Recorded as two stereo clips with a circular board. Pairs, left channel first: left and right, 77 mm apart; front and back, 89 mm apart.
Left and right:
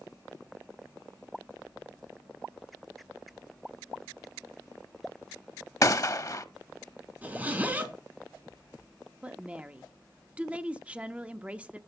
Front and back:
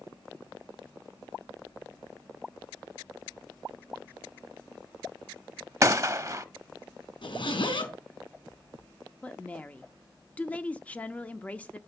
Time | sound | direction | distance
5.8 | a gunshot | 130° left | 0.6 m
7.2 | a zipper | 20° right | 3.5 m
9.2 | a woman speaking | 45° right | 0.7 m